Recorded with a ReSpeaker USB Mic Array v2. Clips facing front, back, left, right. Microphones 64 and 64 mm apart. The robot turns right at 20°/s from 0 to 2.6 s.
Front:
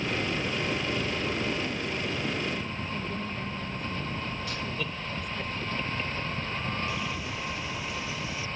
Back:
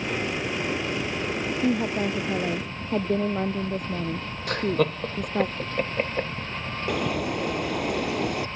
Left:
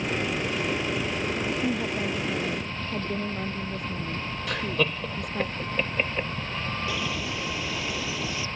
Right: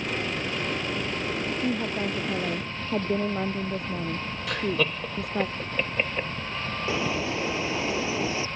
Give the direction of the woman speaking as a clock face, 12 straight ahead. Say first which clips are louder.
Back 8 dB, even; 6 o'clock.